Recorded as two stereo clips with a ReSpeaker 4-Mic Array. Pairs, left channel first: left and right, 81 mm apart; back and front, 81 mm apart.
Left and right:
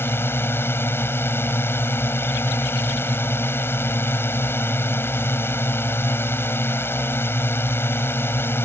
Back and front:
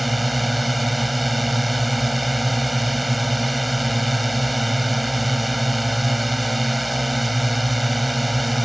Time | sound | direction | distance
0.0 | a drone | 90° left | ?